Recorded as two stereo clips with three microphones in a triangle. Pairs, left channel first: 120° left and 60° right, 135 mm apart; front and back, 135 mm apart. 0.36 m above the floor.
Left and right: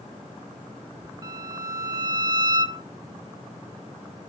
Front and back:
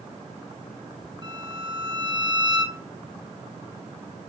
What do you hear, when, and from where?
1.2 s a violin: 120° right, 0.5 m